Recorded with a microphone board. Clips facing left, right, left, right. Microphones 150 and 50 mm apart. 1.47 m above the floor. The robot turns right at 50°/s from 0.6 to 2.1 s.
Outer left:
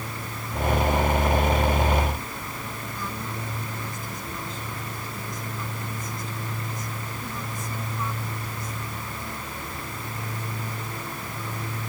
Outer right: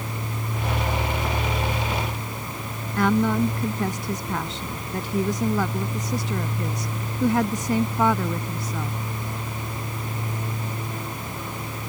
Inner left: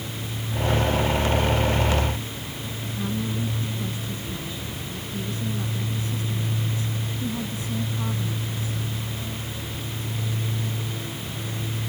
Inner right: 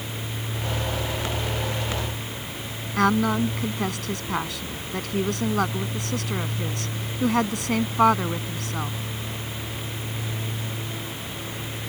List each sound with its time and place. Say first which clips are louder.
3.0 s a woman speaking: outer right 18 dB, inner right 9 dB; 80° right